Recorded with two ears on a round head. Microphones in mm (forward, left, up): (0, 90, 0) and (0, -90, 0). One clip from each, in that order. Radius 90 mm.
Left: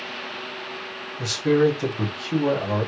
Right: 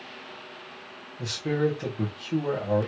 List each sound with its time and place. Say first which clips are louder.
1.2 s a man speaking: left 7 dB; 20° left (ahead or behind), 1.2 m